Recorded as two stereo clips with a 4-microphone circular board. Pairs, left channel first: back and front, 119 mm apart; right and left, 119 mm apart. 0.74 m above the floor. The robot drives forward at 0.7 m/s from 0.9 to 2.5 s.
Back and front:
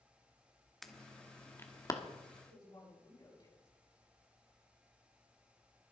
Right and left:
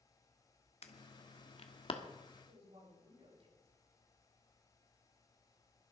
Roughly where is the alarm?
Right.